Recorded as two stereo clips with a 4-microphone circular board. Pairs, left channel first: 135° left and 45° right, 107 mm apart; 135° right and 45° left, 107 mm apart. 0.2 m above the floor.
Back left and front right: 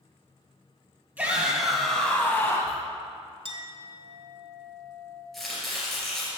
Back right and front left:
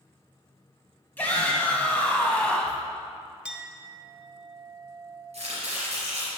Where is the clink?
30° right, 0.8 m.